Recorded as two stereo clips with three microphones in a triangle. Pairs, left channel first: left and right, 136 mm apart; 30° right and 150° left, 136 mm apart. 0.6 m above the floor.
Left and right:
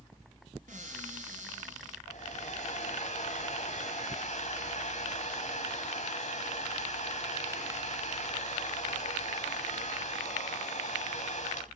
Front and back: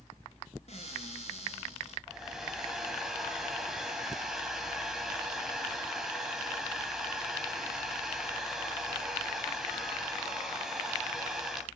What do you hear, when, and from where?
0.7 s a cupboard door: 70° right, 5 m
2.1 s a hair dryer: 60° left, 3 m